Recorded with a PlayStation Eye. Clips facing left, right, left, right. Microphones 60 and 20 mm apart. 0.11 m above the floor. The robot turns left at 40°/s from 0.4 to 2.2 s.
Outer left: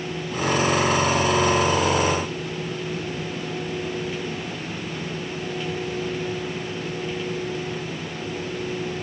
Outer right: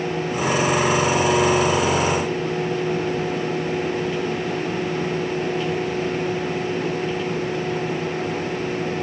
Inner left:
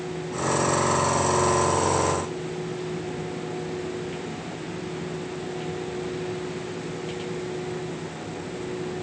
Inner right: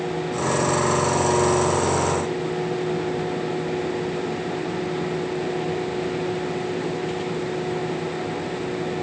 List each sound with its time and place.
Only background noise.